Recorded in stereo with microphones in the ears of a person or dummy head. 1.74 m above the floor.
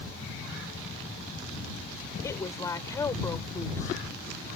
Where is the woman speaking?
20° left (ahead or behind).